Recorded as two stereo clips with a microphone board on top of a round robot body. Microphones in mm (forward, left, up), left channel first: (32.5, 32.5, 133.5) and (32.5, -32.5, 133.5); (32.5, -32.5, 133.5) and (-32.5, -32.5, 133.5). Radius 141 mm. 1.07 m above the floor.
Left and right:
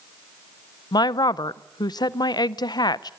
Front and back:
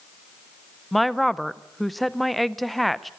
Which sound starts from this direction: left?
A woman speaking, at 0.9 s.